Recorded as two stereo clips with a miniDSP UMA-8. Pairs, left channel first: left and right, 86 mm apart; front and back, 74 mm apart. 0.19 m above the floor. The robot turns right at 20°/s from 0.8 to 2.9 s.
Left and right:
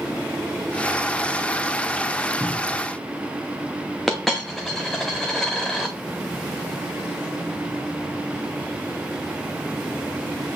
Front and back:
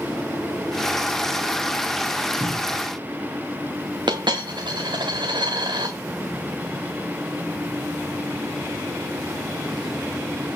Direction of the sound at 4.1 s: 175° left.